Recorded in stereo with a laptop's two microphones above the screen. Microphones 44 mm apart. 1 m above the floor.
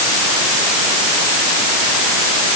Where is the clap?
I don't hear a clap.